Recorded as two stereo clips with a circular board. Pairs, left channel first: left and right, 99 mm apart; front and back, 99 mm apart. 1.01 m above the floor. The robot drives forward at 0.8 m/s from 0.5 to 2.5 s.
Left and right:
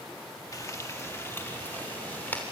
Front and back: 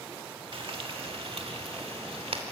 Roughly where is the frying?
Behind left.